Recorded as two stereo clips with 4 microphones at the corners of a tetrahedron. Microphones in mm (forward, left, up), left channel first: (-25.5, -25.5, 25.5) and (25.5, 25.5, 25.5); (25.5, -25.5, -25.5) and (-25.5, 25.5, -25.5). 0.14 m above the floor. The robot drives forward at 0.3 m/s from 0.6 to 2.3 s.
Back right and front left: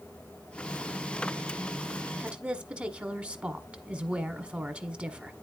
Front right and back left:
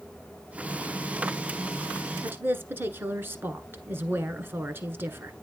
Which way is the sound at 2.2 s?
105° left.